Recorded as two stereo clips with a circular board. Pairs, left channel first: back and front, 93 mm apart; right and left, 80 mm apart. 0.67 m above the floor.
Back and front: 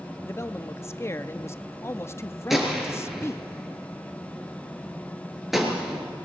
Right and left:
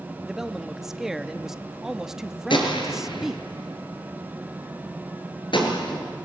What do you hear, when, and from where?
0.2 s a man speaking: 165° left, 0.8 m
2.5 s a gunshot: 90° right, 4 m